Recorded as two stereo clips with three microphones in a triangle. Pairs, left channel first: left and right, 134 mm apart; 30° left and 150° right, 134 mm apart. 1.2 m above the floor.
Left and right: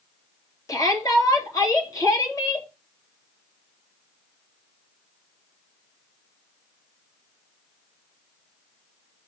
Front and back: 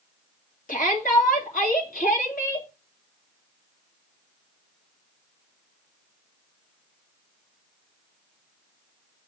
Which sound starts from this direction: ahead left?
A shout, at 0.7 s.